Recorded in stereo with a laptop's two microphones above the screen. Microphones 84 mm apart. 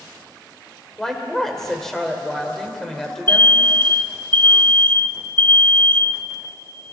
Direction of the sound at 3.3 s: 25° left (ahead or behind).